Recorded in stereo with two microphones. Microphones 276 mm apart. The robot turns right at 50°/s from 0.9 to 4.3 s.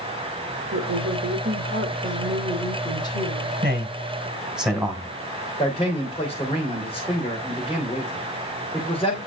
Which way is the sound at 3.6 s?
35° right (ahead or behind).